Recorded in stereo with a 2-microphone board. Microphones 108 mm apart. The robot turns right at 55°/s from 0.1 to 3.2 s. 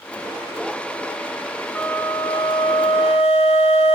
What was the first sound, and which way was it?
A flute, 15° left.